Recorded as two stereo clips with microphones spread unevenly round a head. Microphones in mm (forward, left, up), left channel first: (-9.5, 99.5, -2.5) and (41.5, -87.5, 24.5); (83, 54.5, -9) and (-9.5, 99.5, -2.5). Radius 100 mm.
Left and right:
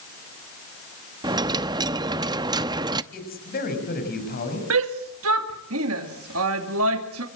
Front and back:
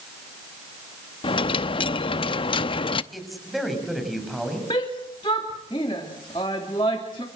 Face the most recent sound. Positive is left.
turn(degrees=-90)